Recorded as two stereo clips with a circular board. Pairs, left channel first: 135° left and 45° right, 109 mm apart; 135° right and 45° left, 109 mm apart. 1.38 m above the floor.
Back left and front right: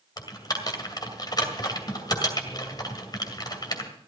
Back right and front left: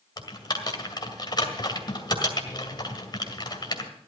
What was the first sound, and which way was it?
Typing on a keyboard, straight behind.